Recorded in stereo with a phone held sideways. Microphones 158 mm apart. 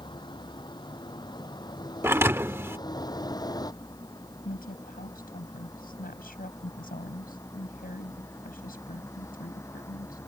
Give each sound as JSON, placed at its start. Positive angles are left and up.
{"t": 0.0, "sound": "a vehicle", "side_deg": 30}
{"t": 2.0, "sound": "a thud", "side_deg": -15}
{"t": 4.5, "sound": "a woman speaking", "side_deg": 80}